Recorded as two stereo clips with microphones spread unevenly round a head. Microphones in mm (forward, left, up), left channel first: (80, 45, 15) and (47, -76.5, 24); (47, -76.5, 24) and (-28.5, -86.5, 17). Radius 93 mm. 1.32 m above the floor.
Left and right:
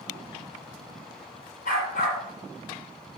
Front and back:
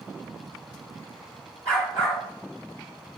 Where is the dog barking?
70° left, 3 m.